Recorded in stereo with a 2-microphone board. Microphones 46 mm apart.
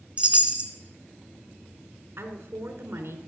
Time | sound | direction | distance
0.2 | a chime | 25° right (ahead or behind) | 1.8 m
2.2 | a woman speaking | 60° right (ahead or behind) | 3 m